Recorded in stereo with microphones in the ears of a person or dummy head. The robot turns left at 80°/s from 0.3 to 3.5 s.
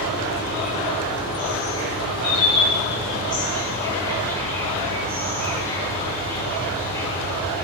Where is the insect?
90° right, 5 m; by 7.6 s 15° left, 5 m.